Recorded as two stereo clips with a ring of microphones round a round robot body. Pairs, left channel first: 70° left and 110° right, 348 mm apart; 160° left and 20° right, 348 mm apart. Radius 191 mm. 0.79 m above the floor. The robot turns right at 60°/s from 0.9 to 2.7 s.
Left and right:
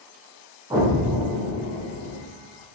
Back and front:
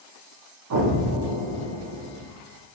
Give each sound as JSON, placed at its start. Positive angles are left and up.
{"t": 0.7, "sound": "an explosion", "azimuth_deg": -35, "distance_m": 0.6}